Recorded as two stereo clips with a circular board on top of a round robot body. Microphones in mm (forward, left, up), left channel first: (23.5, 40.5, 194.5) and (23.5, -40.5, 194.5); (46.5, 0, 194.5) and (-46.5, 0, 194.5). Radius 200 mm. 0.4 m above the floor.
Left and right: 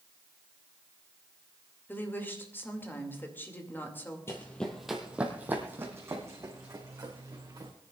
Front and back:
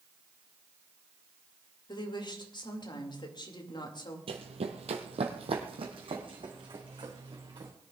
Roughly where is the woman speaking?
Ahead left.